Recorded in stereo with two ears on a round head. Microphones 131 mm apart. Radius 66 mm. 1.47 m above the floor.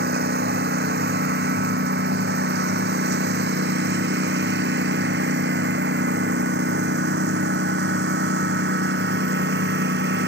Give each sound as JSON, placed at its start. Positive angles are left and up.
{"t": 0.0, "sound": "a lawn mower", "side_deg": -80}